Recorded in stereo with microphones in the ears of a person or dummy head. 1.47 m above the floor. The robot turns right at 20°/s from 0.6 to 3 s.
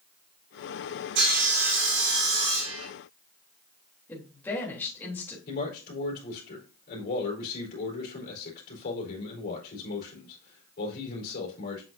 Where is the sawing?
120° right, 3.5 m; by 2.9 s 85° right, 3.5 m.